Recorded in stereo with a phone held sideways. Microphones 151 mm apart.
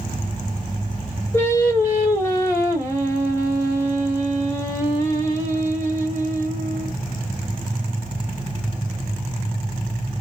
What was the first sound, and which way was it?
Singing, 20° left (ahead or behind).